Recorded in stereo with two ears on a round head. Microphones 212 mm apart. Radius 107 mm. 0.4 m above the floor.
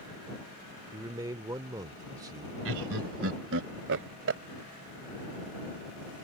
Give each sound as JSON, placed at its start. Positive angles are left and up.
{"t": 0.9, "sound": "a man speaking", "side_deg": -15}
{"t": 2.6, "sound": "laughter", "side_deg": -50}